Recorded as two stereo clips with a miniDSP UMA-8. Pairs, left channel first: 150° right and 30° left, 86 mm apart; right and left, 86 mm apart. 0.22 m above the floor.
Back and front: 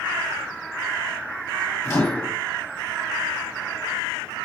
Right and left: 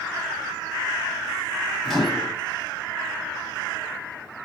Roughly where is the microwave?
Behind.